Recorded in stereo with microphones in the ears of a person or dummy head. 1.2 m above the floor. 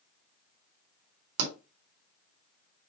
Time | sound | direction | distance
1.4 | a pop | 75° right (ahead or behind) | 3.5 m